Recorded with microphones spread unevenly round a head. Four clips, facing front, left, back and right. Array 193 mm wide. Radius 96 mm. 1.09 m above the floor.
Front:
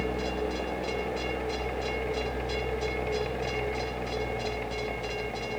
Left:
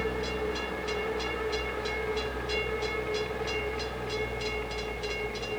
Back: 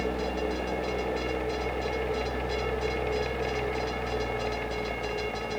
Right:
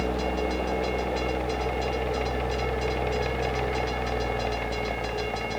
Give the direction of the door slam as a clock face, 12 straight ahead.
No door slam in this recording.